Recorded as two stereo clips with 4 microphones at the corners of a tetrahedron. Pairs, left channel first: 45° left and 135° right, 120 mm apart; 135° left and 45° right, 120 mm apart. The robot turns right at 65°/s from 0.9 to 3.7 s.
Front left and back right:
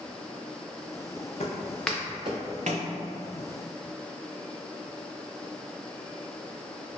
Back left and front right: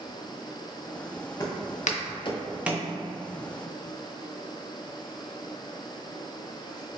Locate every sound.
1.4 s footsteps: 75° left, 0.8 m; by 2.9 s 100° right, 0.8 m